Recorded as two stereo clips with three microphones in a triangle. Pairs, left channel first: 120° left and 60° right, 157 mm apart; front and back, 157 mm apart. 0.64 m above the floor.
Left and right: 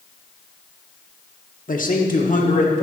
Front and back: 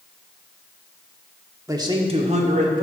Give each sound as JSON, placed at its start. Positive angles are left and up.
{"t": 1.7, "sound": "a man speaking", "azimuth_deg": 115, "distance_m": 1.0}